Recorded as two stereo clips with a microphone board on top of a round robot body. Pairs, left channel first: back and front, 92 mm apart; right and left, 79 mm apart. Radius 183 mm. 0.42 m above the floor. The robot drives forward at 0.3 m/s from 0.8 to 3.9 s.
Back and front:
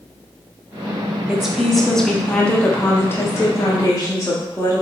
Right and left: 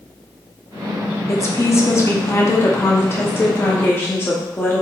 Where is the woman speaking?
75° right, 1.0 m; by 4.8 s 140° right, 1.2 m.